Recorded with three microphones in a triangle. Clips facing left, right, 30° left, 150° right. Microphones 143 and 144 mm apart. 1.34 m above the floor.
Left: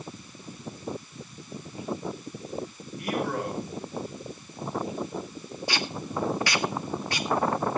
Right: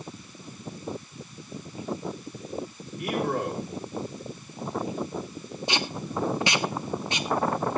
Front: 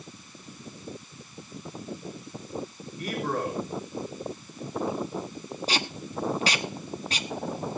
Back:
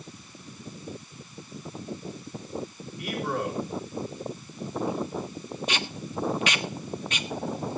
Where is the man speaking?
25° right, 5 m.